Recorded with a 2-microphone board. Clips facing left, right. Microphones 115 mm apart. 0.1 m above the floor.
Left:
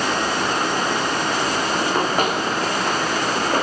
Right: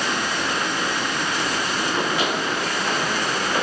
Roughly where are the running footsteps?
Left.